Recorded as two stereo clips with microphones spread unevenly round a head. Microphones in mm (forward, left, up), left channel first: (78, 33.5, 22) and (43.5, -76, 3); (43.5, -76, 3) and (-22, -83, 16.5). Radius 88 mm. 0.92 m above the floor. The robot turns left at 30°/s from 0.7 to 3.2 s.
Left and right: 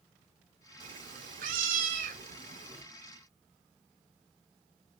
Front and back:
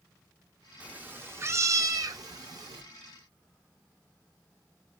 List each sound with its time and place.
0.8 s a cat meowing: 105° right, 0.6 m; by 2.8 s 165° right, 0.6 m